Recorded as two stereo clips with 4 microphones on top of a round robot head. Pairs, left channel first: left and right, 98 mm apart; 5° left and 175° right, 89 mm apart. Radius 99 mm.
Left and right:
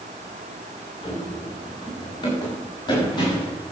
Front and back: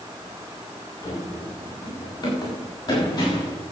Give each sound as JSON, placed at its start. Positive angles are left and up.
{"t": 1.0, "sound": "running footsteps", "azimuth_deg": 50, "distance_m": 7.5}